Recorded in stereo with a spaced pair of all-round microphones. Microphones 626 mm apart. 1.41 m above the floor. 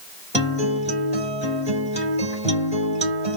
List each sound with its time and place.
0.3 s a guitar: 10° right (ahead or behind), 1.3 m